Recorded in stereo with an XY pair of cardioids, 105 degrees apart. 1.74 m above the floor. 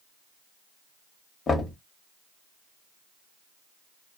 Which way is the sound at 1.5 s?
40° left.